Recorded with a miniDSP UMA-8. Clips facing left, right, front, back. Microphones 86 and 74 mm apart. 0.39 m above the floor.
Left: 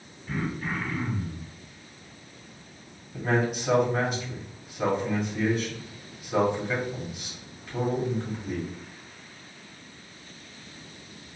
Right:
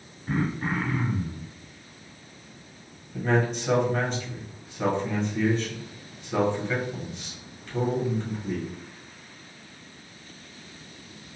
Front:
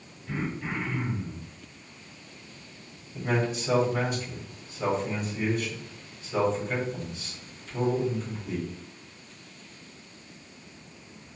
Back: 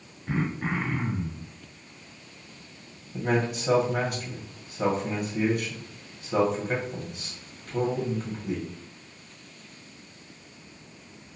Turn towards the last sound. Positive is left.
turn(degrees=170)